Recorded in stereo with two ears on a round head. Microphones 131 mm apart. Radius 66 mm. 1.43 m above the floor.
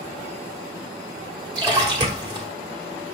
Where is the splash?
30° right (ahead or behind), 1.1 m.